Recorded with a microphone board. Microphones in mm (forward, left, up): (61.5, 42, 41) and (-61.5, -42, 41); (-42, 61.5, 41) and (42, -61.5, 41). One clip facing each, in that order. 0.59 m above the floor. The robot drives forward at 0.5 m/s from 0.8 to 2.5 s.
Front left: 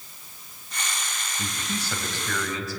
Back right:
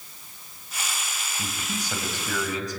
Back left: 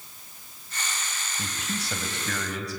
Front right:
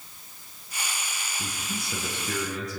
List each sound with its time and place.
1.4 s a man speaking: 135° left, 4 m; by 2.8 s 140° left, 4.5 m